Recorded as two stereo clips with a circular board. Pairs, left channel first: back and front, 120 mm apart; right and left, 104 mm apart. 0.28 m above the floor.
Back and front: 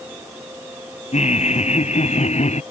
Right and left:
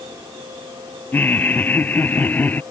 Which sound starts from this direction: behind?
Laughter, at 1.1 s.